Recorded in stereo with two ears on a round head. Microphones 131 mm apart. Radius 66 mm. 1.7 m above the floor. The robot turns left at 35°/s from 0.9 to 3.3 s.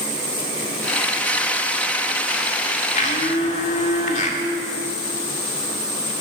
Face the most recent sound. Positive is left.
turn(degrees=50)  # may be behind; listen again after turning